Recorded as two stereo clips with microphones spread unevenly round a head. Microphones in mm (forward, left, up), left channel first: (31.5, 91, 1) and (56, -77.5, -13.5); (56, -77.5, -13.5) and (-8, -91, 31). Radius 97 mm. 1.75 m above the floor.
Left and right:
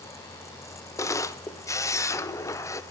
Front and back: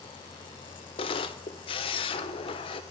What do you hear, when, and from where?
1.0 s a camera shutter: 35° left, 0.6 m